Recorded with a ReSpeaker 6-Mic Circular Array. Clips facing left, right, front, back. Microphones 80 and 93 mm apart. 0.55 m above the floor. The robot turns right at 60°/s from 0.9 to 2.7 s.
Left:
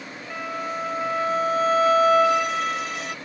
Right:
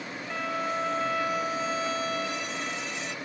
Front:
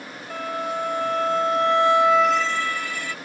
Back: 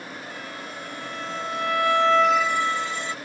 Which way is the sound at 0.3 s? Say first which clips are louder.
Left 1 dB, front 9 dB; 5° left.